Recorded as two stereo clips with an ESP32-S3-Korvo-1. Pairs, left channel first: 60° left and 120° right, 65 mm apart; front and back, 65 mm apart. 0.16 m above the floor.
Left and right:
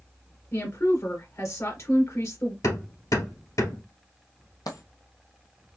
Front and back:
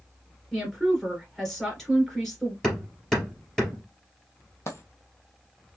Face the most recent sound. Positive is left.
turn(degrees=45)